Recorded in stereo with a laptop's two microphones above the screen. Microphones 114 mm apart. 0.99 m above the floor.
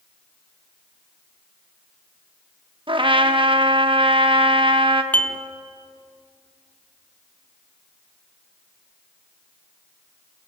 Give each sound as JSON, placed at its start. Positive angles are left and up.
{"t": 2.9, "sound": "a trumpet", "side_deg": -45, "distance_m": 1.2}
{"t": 5.1, "sound": "dishes clattering", "side_deg": 15, "distance_m": 1.2}